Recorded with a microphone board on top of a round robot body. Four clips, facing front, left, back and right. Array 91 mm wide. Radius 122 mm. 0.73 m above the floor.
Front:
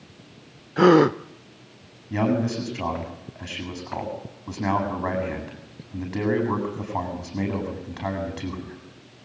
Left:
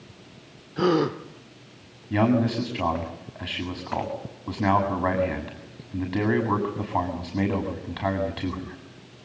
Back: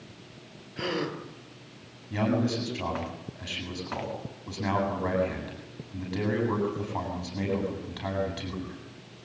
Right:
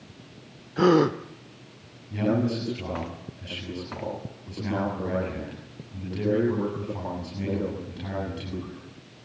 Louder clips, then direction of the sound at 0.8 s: Right 3 dB, front 16 dB; 5° right.